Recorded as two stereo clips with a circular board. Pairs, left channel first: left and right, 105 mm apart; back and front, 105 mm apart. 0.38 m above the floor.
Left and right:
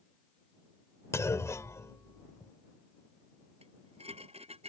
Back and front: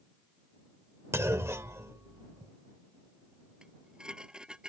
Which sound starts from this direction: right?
Dishes clattering, at 3.6 s.